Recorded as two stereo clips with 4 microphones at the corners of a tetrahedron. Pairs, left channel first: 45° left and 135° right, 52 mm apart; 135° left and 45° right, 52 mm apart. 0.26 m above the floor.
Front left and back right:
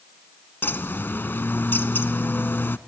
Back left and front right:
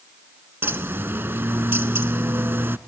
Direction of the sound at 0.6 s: Straight ahead.